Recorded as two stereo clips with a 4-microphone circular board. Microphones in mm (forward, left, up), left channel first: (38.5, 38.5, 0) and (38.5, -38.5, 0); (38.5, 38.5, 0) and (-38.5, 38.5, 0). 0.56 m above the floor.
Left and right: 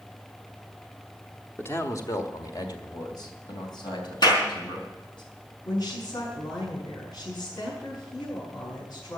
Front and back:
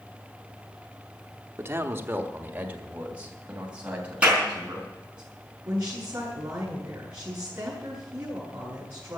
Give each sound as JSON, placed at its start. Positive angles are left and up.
{"t": 1.6, "sound": "a man speaking", "azimuth_deg": 135, "distance_m": 1.0}
{"t": 4.2, "sound": "a clap", "azimuth_deg": 105, "distance_m": 4.5}
{"t": 5.7, "sound": "a woman speaking", "azimuth_deg": 120, "distance_m": 5.5}